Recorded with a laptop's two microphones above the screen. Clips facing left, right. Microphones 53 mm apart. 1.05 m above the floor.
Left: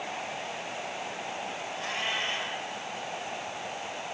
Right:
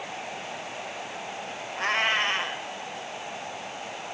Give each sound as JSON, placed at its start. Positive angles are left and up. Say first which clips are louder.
{"t": 1.8, "sound": "a cat meowing", "louder": "right 9 dB", "side_deg": -55, "distance_m": 1.6}